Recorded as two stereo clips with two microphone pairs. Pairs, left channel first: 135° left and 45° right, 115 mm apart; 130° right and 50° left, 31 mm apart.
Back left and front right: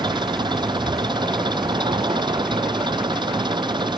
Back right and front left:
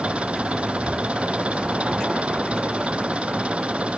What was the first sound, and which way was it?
An engine running, 5° left.